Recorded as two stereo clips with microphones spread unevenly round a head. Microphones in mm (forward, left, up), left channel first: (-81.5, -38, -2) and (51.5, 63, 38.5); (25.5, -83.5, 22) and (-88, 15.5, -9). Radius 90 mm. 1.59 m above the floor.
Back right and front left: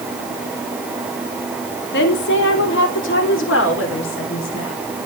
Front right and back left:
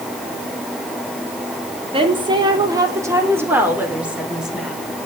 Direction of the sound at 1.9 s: 165° right.